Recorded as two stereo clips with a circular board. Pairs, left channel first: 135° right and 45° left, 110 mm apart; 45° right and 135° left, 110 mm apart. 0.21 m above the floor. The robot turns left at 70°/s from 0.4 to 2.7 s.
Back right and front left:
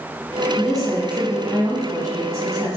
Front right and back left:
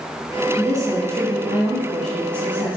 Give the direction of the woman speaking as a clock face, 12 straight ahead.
7 o'clock.